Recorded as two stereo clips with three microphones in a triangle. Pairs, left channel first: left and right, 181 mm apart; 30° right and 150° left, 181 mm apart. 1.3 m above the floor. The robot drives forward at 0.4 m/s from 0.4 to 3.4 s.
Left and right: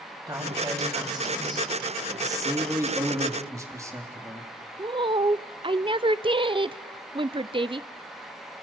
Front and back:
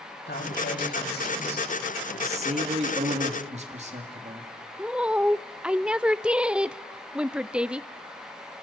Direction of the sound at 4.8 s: 130° right.